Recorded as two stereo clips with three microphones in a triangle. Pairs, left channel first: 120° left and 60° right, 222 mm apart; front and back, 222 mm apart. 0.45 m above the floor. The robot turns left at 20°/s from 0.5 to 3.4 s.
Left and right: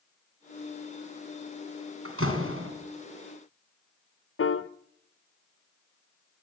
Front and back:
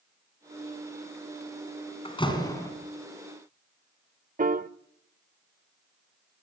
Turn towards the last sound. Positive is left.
turn(degrees=130)